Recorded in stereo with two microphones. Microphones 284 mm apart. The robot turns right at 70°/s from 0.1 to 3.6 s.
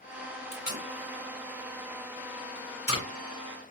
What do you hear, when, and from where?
0.5 s tape being pulled: 55° right (ahead or behind), 1.9 m; by 3.0 s 55° left (ahead or behind), 1.9 m